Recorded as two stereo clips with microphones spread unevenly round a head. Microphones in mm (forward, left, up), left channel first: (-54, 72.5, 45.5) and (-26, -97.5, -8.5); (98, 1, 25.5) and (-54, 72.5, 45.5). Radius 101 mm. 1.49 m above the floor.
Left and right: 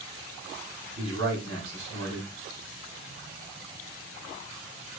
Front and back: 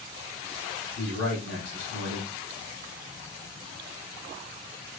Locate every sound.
0.9 s a man speaking: 45° right, 4.5 m